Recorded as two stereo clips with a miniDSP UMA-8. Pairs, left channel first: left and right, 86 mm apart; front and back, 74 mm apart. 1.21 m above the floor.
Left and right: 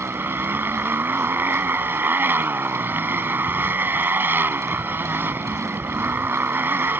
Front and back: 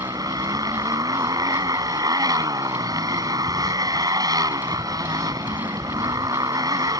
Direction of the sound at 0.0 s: 155° right.